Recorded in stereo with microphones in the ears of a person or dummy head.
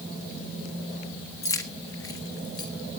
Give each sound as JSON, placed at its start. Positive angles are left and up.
{"t": 1.4, "sound": "keys jangling", "side_deg": 15, "distance_m": 1.5}